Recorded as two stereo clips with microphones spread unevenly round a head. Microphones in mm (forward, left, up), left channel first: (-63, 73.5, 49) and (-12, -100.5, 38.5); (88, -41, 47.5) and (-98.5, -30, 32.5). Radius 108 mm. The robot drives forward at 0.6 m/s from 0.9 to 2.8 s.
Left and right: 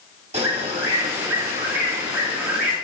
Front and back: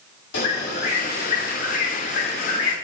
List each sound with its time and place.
0.3 s a bird: 15° right, 1.8 m; by 2.8 s 40° right, 1.1 m